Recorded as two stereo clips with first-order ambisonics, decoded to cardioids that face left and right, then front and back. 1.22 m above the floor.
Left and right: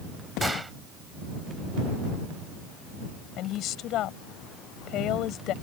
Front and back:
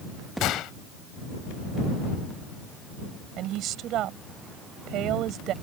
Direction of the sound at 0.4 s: 10° right.